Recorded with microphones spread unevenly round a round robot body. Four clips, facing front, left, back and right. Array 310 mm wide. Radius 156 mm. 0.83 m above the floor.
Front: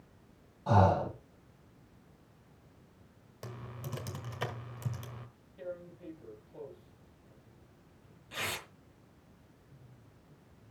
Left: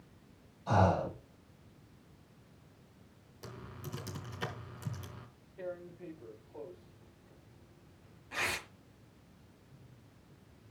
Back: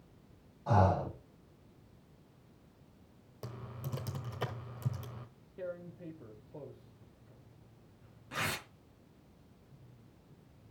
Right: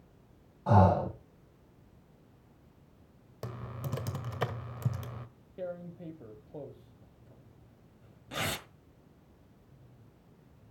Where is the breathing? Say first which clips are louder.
Right 4 dB, front 3 dB; 50° right, 7.5 m.